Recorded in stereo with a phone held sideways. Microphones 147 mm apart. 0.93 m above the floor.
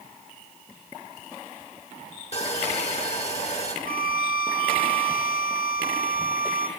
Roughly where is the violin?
Left.